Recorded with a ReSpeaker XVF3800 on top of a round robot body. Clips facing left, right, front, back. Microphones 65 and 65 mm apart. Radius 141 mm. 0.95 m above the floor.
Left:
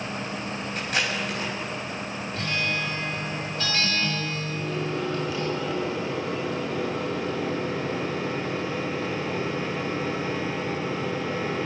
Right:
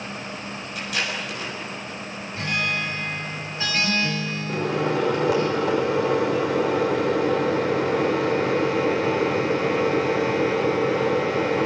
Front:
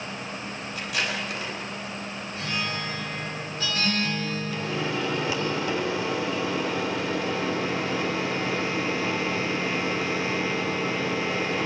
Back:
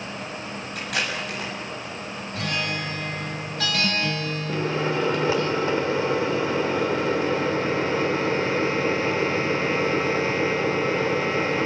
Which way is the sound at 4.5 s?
120° right.